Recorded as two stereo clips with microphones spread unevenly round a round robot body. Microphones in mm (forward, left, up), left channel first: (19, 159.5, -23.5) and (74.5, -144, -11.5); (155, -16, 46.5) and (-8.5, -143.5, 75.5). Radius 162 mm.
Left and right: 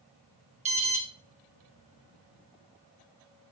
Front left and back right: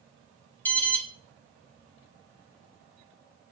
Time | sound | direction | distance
0.7 | an alarm | 25° right | 1.7 m